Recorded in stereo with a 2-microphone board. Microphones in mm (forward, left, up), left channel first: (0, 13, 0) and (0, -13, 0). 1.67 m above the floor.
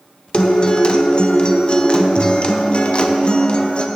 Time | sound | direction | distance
0.3 | a guitar | 40° left (ahead or behind) | 0.6 m